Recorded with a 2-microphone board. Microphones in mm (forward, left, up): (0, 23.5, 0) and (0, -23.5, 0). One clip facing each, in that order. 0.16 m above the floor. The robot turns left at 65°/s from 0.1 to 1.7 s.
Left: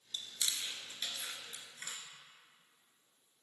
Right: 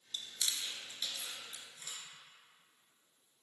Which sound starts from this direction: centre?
Chewing, at 0.1 s.